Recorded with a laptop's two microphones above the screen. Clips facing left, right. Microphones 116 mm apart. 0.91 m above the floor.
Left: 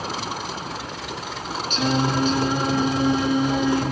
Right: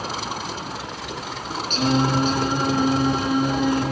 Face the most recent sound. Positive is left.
turn(degrees=-45)  # may be behind; listen again after turning